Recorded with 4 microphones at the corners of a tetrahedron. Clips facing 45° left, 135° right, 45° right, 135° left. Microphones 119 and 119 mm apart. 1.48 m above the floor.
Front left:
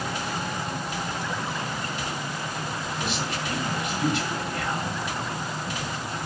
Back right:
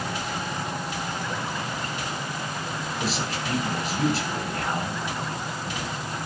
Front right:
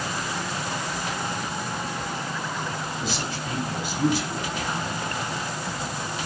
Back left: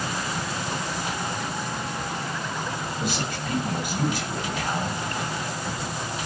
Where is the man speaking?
170° left, 6.5 m.